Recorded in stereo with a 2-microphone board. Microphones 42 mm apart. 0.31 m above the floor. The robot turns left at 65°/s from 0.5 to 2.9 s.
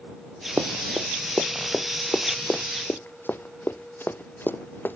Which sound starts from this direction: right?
Running footsteps, at 0.6 s.